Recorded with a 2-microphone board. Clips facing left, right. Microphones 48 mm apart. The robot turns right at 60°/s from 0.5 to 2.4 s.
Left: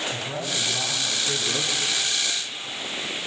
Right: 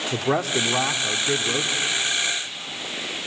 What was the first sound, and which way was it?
A man speaking, 80° right.